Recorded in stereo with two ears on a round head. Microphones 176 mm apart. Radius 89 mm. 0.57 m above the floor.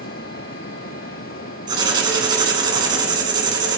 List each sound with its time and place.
1.7 s writing: 25° right (ahead or behind), 3 m